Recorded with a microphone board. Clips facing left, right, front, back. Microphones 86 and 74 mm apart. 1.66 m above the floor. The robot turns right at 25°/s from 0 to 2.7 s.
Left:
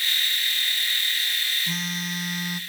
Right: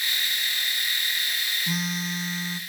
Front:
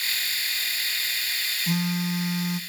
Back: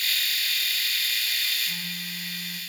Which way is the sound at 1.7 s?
5° right.